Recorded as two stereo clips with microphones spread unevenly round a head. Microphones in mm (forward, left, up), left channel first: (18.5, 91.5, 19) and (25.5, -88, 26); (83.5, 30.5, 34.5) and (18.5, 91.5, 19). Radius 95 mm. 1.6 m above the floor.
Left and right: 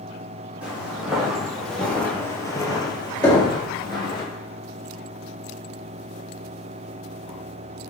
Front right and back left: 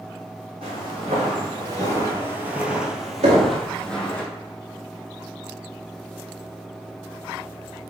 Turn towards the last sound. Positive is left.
turn(degrees=170)